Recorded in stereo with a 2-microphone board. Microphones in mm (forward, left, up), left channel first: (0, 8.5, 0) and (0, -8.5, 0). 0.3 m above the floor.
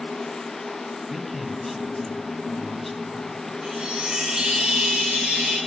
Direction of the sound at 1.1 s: 5° left (ahead or behind).